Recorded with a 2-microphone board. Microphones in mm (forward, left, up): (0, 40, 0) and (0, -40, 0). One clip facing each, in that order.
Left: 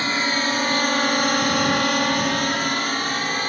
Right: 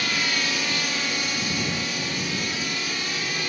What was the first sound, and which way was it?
A drone, 35° left (ahead or behind).